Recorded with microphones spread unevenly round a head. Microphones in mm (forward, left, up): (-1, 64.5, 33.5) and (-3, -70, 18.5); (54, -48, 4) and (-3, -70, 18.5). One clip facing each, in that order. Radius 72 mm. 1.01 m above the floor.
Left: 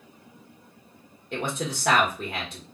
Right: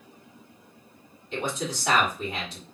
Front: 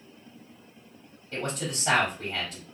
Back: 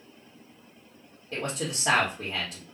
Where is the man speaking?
130° left, 1.2 m.